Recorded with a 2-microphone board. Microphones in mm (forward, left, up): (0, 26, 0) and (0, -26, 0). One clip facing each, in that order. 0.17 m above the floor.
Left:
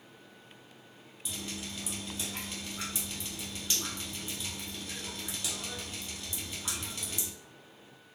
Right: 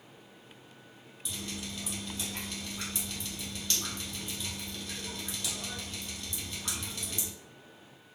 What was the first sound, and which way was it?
Dripping, 10° left (ahead or behind).